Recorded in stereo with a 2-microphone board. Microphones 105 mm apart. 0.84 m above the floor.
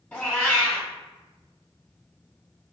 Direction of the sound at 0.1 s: 20° left (ahead or behind).